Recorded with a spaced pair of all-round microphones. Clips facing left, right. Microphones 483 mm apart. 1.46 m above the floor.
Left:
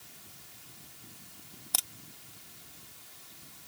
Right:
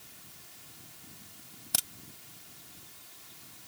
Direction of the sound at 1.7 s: 45° right (ahead or behind).